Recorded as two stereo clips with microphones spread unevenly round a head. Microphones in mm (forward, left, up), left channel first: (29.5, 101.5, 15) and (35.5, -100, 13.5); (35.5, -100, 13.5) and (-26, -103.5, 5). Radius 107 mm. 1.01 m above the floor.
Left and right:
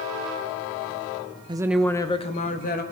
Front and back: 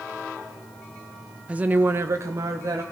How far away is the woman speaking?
About 0.8 m.